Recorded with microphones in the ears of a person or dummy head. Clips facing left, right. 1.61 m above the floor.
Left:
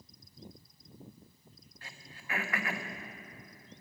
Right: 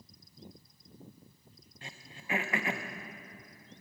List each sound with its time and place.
1.8 s throat clearing: 25° right (ahead or behind), 0.9 m